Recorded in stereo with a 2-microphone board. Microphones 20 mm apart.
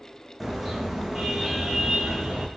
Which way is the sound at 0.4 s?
10° right (ahead or behind).